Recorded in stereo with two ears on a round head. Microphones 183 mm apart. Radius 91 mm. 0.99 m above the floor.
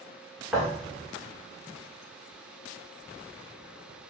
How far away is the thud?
About 1.4 m.